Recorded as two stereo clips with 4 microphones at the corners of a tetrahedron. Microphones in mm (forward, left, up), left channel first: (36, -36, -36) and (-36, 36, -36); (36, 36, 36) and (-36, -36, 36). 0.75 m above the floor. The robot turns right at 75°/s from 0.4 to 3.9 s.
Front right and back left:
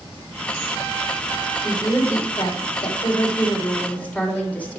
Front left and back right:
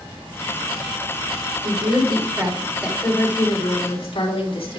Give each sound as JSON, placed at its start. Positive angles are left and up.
{"t": 1.6, "sound": "a woman speaking", "azimuth_deg": -140, "distance_m": 3.0}